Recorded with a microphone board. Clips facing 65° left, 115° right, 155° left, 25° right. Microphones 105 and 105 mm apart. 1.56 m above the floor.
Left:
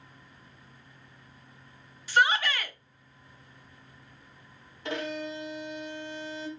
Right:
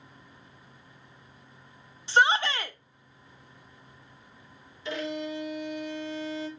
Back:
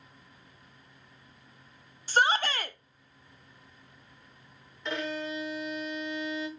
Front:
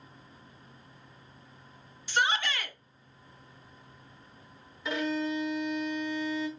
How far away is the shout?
About 0.5 m.